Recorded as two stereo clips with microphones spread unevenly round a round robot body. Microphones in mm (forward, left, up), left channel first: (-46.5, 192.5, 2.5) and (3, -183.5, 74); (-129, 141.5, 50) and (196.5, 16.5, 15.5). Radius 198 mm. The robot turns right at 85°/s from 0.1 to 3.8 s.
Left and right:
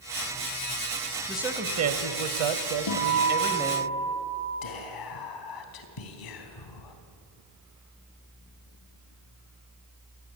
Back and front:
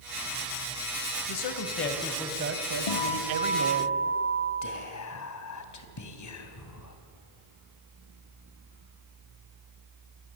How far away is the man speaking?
About 1.9 m.